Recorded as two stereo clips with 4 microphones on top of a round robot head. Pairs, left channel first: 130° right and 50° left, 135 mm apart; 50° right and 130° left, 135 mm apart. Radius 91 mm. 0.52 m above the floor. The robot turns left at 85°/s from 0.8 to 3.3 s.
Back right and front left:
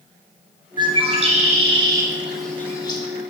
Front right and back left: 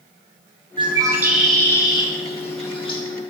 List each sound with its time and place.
0.8 s a bird: 95° left, 0.8 m; by 3.0 s 95° right, 0.8 m